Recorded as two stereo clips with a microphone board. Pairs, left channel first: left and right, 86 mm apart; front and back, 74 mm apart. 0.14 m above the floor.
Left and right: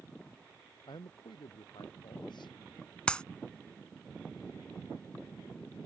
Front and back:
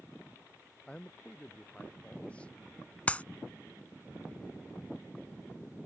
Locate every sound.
0.9 s a man speaking: 75° left
3.1 s a clap: 30° left